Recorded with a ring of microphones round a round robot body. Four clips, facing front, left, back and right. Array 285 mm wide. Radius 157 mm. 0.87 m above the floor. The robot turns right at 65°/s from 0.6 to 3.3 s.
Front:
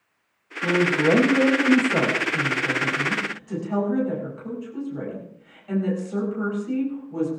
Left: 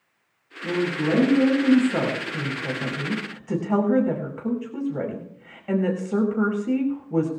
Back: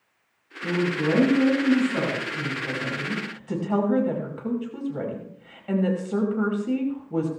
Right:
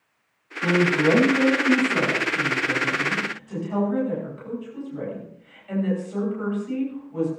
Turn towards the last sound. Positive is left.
turn(degrees=120)